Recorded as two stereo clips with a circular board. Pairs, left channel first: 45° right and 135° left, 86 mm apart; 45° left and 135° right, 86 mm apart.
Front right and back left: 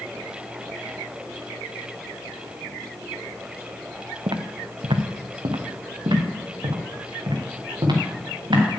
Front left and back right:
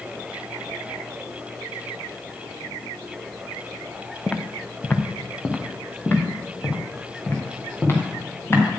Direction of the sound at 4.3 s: 120° left.